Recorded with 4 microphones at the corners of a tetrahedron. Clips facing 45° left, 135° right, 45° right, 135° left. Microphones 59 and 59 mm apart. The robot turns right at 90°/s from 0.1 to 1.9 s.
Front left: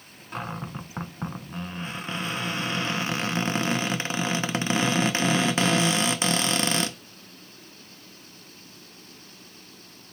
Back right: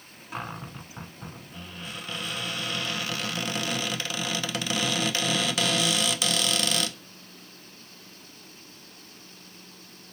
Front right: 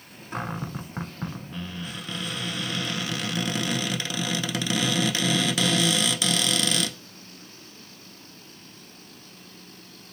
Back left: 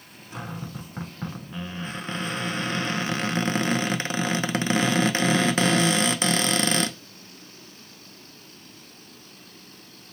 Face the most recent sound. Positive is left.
turn(degrees=95)